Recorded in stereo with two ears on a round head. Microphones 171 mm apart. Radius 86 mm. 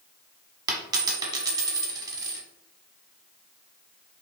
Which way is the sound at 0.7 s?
20° right (ahead or behind).